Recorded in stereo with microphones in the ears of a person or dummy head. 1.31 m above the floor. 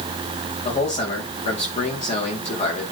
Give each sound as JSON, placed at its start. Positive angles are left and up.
{"t": 0.7, "sound": "a man speaking", "side_deg": 35, "distance_m": 3.5}